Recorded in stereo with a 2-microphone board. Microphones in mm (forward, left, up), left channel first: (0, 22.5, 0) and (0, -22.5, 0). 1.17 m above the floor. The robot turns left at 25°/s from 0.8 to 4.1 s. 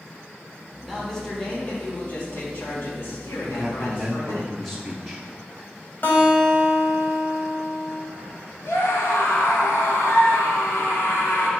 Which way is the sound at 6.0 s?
45° left (ahead or behind).